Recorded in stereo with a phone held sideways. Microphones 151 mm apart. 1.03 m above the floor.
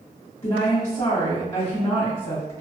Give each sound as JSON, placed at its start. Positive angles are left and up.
{"t": 0.4, "sound": "a woman speaking", "side_deg": 50, "distance_m": 1.9}